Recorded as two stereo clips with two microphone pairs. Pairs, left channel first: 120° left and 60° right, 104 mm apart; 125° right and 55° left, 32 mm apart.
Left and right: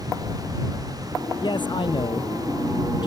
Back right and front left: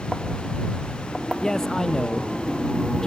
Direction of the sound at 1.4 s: 165° left.